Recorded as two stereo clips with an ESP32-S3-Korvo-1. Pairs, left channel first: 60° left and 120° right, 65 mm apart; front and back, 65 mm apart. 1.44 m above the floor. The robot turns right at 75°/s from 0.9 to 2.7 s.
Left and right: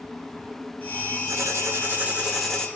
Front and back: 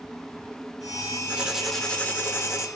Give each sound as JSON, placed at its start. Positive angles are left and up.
{"t": 1.3, "sound": "writing", "azimuth_deg": -115, "distance_m": 0.7}